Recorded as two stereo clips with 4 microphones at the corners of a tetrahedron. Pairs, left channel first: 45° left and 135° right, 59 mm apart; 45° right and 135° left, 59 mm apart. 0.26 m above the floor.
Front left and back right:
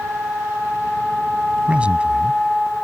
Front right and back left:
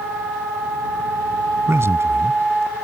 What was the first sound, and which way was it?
A man speaking, 160° left.